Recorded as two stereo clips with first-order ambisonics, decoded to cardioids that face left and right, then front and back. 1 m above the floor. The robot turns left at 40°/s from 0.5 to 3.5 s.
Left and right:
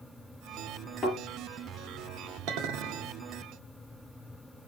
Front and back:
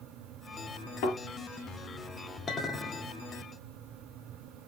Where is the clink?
70° right, 1.6 m; by 3.1 s 95° right, 1.6 m.